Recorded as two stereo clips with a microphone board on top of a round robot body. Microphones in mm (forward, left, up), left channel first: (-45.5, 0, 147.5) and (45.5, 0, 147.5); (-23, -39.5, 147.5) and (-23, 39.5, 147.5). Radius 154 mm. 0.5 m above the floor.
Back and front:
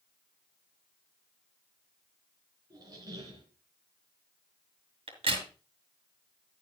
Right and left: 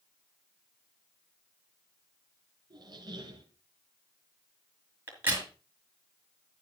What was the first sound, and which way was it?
A squeak, 50° left.